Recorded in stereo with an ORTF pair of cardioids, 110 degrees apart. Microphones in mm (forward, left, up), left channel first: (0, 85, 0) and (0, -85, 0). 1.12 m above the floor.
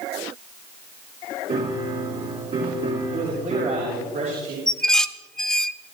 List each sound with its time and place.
1.5 s a piano: 45° right, 4 m
3.1 s a man speaking: 55° right, 5.5 m
4.7 s dishes clattering: 5° left, 0.6 m